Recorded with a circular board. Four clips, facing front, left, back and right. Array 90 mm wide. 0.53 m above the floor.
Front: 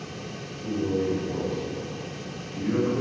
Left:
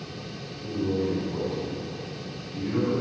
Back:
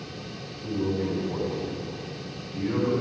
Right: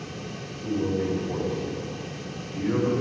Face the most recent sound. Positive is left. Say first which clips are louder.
# right 1 dB, front 2 dB
turn(degrees=-95)